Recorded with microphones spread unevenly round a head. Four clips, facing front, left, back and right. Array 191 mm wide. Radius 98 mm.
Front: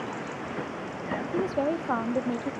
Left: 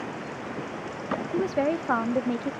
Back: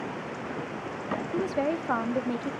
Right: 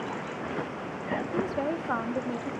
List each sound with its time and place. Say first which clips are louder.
1.3 s a woman speaking: left 6 dB, front 1 dB; 70° left, 0.6 m